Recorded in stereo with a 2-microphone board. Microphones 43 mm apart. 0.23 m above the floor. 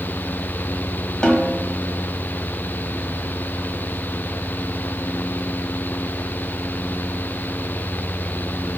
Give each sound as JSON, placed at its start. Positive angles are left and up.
{"t": 1.2, "sound": "a snare drum", "side_deg": 20, "distance_m": 1.5}